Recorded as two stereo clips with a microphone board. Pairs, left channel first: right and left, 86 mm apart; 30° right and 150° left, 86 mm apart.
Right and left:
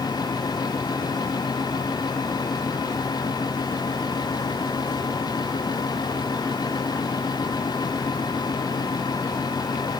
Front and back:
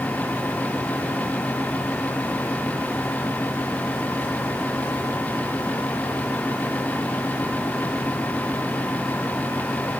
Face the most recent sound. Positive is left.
No sound to turn to.